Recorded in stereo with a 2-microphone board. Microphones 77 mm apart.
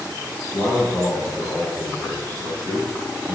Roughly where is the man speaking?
Left.